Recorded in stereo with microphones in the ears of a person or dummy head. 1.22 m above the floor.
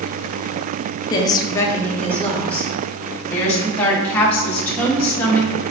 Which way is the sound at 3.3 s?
10° left (ahead or behind).